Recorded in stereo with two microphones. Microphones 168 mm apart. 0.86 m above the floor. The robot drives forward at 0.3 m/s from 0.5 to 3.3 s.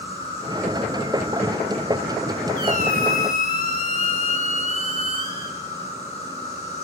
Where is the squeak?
55° left (ahead or behind), 1.1 m; by 5.6 s 50° left (ahead or behind), 1.2 m.